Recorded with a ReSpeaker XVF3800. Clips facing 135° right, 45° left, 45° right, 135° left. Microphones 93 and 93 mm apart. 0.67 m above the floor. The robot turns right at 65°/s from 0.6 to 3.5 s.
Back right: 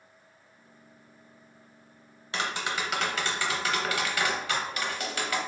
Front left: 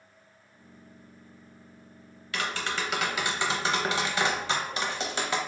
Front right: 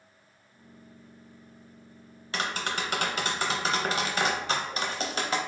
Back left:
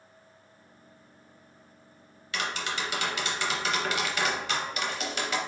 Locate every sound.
2.3 s tapping: 85° right, 0.6 m; by 5.4 s 10° right, 0.6 m